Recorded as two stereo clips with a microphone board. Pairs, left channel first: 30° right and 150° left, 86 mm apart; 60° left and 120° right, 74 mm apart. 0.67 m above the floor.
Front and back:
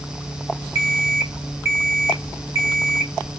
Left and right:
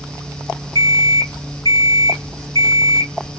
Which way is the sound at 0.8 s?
95° left.